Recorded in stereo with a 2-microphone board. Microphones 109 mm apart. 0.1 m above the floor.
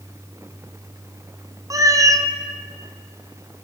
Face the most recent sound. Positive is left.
turn(degrees=-35)  # may be behind; listen again after turning